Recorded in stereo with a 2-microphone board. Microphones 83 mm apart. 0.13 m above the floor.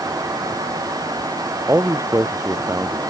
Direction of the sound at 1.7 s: 30° right (ahead or behind).